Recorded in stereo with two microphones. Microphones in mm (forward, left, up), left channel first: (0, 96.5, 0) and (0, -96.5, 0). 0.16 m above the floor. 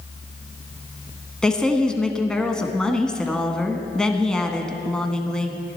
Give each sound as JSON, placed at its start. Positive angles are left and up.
{"t": 1.4, "sound": "a woman speaking", "side_deg": 5, "distance_m": 1.1}